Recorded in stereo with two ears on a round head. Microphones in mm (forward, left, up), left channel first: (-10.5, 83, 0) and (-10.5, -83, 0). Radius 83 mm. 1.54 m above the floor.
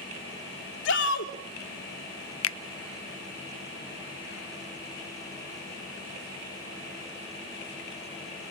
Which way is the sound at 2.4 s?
75° left (ahead or behind).